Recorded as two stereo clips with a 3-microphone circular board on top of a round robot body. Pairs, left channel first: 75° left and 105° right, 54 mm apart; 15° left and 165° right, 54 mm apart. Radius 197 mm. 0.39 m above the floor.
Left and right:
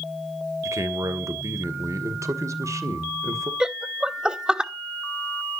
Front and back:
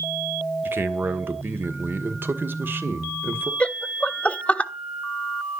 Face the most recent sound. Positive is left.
turn(degrees=-35)